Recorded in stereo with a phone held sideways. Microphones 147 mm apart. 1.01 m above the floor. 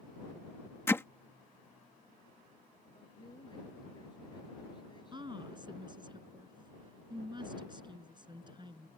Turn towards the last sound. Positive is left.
turn(degrees=-30)  # may be behind; listen again after turning